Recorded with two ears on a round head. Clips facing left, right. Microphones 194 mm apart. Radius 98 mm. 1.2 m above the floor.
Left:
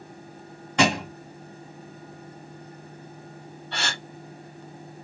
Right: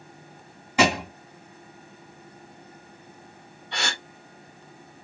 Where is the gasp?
15° right (ahead or behind), 1.7 m.